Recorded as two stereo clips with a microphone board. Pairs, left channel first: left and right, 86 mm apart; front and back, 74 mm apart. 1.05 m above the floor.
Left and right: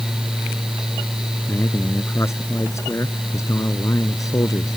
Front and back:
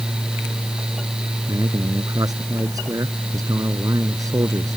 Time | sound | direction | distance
1.5 | a man speaking | 150° left | ?